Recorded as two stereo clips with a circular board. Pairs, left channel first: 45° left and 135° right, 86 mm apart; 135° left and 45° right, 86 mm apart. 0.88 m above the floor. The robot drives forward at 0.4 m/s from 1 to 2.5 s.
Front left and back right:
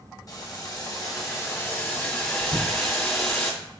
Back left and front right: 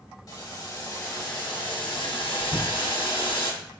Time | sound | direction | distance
0.3 | boiling | 90° left | 0.8 m
2.5 | knocking | 150° left | 0.9 m